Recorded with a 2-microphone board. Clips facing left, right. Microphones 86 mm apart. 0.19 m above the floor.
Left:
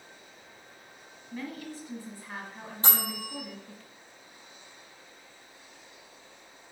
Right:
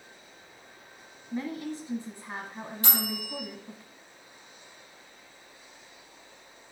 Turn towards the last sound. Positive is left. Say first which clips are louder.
# left 1 dB
turn(degrees=35)  # may be behind; listen again after turning